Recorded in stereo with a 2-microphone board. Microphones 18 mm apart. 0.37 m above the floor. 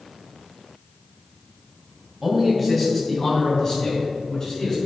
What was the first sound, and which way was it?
A man speaking, 15° right (ahead or behind).